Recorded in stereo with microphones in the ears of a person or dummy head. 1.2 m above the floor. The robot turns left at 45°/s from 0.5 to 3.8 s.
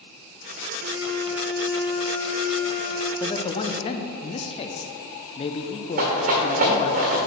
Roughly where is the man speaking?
Centre.